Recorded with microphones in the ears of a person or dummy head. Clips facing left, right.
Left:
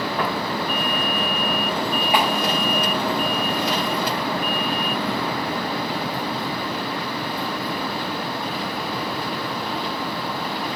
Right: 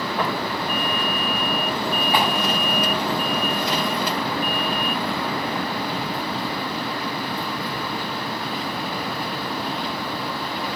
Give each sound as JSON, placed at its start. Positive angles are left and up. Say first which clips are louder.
{"t": 0.2, "sound": "footsteps", "louder": "right 1 dB", "side_deg": 5, "distance_m": 6.5}
{"t": 2.1, "sound": "a clap", "louder": "left 1 dB", "side_deg": 15, "distance_m": 7.0}